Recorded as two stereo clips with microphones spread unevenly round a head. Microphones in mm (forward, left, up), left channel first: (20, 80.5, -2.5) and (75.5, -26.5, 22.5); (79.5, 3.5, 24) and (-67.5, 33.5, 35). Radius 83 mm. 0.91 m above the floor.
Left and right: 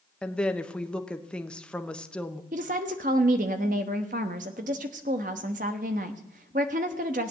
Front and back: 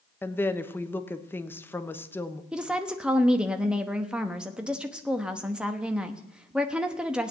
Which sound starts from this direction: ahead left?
A woman speaking, at 0.2 s.